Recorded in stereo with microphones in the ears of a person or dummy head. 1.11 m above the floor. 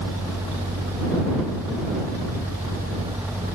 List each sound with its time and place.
0.0 s a fan: 10° right (ahead or behind)